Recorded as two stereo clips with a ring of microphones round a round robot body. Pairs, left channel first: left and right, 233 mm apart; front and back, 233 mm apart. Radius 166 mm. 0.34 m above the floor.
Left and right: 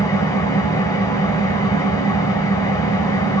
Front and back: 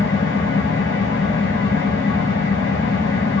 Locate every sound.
0.0 s an engine running: 15° left, 1.7 m